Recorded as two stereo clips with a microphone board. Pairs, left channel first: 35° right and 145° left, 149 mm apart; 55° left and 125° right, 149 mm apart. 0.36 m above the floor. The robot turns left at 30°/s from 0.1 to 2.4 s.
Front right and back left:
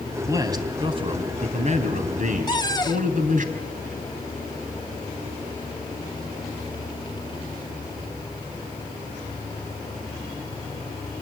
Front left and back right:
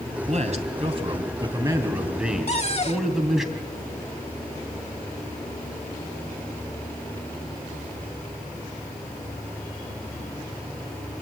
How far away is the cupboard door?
About 0.9 m.